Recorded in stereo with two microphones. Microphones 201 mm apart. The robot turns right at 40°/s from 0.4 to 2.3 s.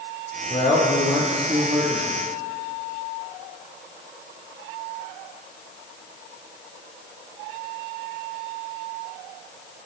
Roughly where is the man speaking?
Behind left.